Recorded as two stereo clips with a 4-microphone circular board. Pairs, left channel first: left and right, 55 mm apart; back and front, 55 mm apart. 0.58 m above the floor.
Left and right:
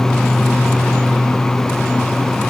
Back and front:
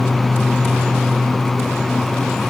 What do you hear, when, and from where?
Only background noise.